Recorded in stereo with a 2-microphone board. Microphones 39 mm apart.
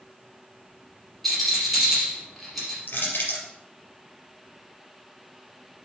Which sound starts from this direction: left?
Crushing, at 2.9 s.